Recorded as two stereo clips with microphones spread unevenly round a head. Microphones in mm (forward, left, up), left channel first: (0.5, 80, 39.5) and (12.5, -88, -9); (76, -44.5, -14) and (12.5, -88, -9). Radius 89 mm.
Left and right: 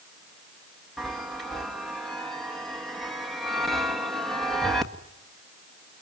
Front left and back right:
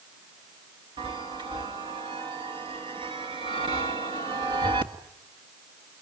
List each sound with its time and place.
1.0 s a chime: 170° right, 1.6 m